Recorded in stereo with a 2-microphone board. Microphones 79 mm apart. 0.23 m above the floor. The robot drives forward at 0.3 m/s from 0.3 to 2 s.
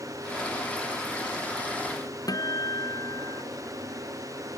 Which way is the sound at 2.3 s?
50° left (ahead or behind).